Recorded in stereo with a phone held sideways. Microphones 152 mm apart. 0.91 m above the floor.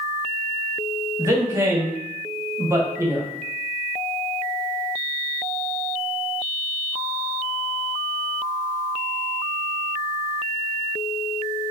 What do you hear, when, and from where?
1.2 s a man speaking: 20° right (ahead or behind), 0.9 m